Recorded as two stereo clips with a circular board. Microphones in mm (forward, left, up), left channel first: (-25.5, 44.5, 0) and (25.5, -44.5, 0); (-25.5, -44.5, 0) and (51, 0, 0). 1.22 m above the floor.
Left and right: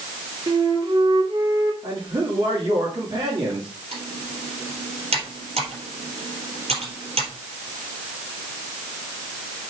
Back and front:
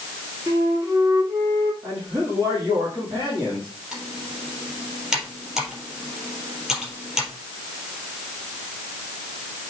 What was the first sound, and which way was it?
A flute, 20° right.